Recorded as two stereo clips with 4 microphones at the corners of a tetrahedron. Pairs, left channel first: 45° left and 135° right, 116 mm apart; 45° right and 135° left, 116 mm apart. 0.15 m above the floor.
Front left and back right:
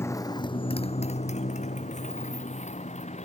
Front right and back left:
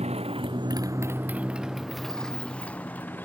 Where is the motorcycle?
115° left; by 3.2 s 30° left.